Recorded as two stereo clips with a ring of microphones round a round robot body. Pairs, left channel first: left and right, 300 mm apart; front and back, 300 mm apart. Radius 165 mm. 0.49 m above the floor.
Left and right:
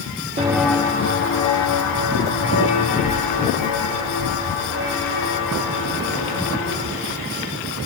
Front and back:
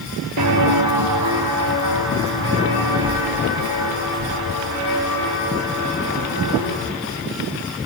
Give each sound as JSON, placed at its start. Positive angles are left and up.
{"t": 0.4, "sound": "footsteps", "azimuth_deg": -160, "distance_m": 0.9}